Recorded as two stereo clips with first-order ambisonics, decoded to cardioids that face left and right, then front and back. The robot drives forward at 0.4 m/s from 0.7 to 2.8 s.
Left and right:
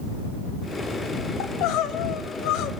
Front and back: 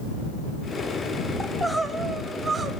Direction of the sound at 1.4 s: 90° left.